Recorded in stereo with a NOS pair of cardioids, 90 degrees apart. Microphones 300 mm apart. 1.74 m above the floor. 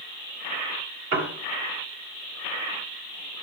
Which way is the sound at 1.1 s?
45° right.